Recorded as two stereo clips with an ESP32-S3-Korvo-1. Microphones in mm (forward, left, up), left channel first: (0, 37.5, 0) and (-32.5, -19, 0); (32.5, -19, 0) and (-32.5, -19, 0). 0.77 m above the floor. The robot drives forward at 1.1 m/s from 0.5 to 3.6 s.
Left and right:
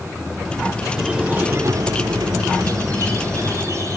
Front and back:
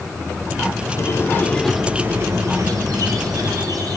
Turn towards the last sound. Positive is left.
turn(degrees=-165)